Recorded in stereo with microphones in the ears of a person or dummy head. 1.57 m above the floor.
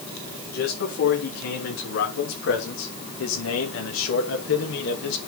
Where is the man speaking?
60° left (ahead or behind), 4 m; by 5.3 s 65° left (ahead or behind), 2.5 m.